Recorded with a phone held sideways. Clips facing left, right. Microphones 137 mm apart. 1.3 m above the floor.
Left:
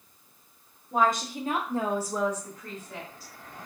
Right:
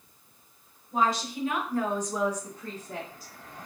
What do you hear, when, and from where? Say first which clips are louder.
0.9 s a woman speaking: left 2 dB; 50° left (ahead or behind), 1.4 m; by 3.3 s 50° right (ahead or behind), 1.3 m